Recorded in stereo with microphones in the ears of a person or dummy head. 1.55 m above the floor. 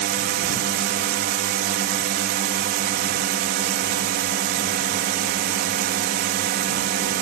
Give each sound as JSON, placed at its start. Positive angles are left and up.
{"t": 0.0, "sound": "a drone", "side_deg": -55}